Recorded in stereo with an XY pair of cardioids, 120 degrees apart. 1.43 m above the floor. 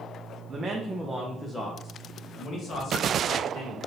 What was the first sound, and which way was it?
A man speaking, 30° right.